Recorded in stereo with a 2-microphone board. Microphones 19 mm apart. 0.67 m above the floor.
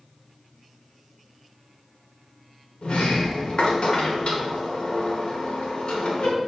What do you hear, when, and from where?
2.8 s a sliding door: 70° left (ahead or behind), 1.3 m